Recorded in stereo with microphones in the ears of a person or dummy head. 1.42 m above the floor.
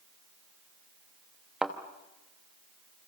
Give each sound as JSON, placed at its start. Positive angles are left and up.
{"t": 1.6, "sound": "a thud", "side_deg": -5, "distance_m": 1.0}